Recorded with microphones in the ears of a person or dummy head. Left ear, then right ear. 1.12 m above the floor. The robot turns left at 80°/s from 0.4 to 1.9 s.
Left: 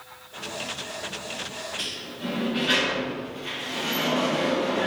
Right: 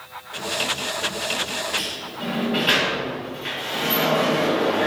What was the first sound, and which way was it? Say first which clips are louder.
A sliding door: right 4 dB; 35° right (ahead or behind).